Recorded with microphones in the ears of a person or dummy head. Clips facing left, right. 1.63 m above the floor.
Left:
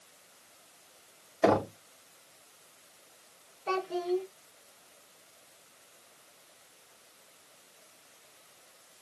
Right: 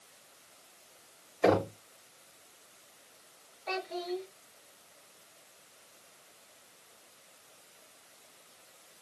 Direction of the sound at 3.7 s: 50° left (ahead or behind).